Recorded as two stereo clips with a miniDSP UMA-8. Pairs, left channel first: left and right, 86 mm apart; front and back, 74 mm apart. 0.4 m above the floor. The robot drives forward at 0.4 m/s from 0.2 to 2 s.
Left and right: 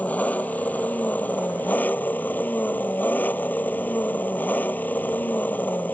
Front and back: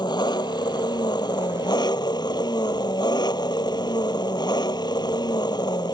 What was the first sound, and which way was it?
An engine running, 20° left.